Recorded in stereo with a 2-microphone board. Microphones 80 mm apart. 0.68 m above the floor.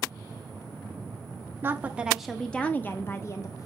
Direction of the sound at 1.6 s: 30° right (ahead or behind).